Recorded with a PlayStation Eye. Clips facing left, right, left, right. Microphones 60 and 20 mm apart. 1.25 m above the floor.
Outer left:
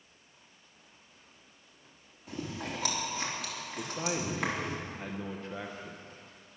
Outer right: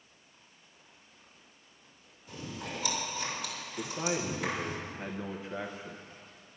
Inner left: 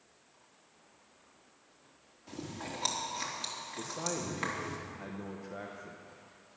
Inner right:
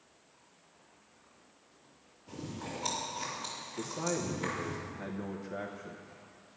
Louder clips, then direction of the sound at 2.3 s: Outer left 3 dB, even; 75° left (ahead or behind).